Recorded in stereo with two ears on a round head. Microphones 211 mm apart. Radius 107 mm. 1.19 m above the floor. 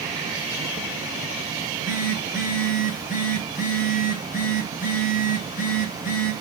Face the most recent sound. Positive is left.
turn(degrees=35)  # may be behind; listen again after turning